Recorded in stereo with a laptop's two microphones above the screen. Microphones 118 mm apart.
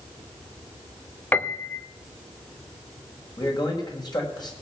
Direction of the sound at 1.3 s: 15° left (ahead or behind).